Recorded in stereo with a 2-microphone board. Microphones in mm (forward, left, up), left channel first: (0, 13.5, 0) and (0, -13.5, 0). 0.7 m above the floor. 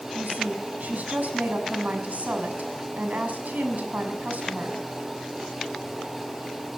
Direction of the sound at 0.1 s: 75° right (ahead or behind).